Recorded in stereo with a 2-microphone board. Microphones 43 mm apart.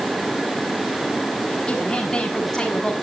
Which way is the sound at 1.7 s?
15° left (ahead or behind).